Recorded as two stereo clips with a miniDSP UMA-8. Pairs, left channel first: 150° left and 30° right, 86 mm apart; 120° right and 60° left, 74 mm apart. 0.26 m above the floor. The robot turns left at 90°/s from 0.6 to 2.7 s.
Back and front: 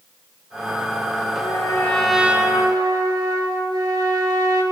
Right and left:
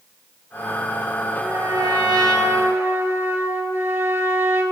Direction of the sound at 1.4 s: 125° left.